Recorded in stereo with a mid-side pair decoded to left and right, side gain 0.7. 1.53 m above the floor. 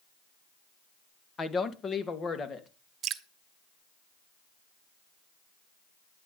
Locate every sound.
1.4 s a woman speaking: 25° left, 1.4 m; by 2.7 s 35° left, 2.5 m
3.0 s dripping: 45° right, 1.1 m